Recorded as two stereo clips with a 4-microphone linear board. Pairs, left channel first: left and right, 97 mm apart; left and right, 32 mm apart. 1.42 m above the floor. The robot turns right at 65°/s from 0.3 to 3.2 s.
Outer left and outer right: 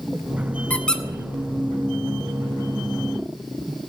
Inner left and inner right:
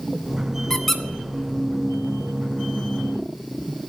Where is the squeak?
15° left (ahead or behind), 0.9 m; by 1.0 s 5° left (ahead or behind), 0.9 m.